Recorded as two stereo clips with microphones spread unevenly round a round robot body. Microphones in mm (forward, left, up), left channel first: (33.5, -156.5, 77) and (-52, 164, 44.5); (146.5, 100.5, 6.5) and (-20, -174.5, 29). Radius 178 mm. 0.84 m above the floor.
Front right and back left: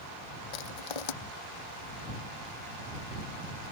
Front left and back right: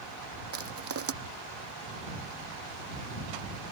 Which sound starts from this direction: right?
Crushing, at 0.5 s.